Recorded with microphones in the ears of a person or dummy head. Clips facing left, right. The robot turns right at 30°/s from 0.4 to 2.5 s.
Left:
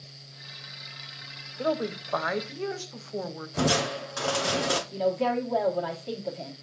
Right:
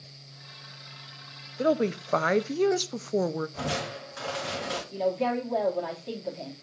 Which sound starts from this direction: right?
A woman speaking, at 1.6 s.